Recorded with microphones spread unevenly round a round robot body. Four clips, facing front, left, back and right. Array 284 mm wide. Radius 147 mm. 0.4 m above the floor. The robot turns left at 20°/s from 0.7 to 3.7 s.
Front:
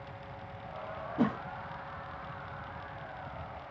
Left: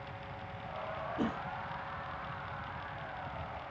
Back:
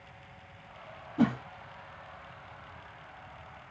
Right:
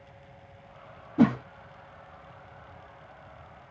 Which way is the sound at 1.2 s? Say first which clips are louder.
Right 15 dB, back 3 dB; 110° right.